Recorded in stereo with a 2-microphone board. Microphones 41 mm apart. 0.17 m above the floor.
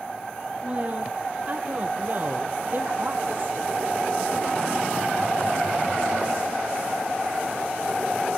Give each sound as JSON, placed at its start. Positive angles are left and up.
{"t": 0.6, "sound": "a woman speaking", "side_deg": -30, "distance_m": 5.0}